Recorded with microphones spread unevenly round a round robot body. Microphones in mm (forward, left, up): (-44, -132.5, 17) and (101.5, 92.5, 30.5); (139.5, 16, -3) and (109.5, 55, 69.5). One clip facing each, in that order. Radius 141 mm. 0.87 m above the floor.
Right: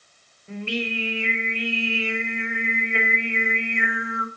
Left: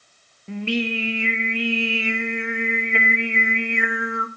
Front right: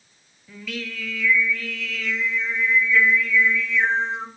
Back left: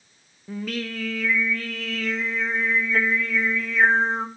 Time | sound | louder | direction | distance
0.5 | singing | left 5 dB, back left 4 dB | 80° left | 1.4 m